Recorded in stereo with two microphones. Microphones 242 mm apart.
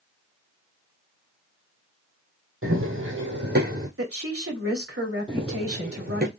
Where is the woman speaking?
65° right (ahead or behind), 2.5 m.